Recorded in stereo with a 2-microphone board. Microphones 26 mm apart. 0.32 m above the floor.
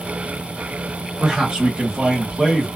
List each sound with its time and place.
1.2 s a man speaking: 35° right (ahead or behind), 1.7 m